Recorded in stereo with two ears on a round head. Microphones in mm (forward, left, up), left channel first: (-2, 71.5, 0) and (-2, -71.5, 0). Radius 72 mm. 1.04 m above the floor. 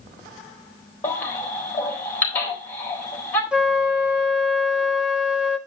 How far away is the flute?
About 0.8 m.